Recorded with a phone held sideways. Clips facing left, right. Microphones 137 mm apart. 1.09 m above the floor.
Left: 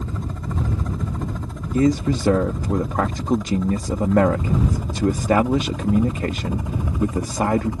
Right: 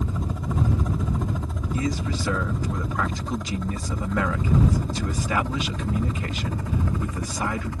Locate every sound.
0.0 s a helicopter: 10° right (ahead or behind); by 7.8 s 20° left (ahead or behind)
1.7 s a man speaking: 60° left (ahead or behind)